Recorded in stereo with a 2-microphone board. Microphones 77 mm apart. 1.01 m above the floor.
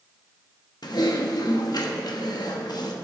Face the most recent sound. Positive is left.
turn(degrees=60)  # may be behind; listen again after turning